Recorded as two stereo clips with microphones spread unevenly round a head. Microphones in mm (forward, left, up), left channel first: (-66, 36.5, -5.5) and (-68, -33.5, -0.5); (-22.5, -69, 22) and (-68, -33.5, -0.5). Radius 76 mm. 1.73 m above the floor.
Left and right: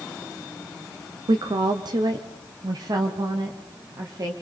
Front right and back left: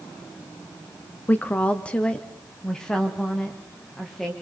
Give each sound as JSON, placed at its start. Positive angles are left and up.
{"t": 1.3, "sound": "a woman speaking", "azimuth_deg": -100, "distance_m": 0.9}